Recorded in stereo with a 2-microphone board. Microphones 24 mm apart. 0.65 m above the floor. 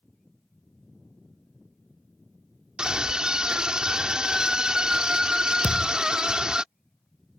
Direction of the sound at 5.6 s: 55° right (ahead or behind).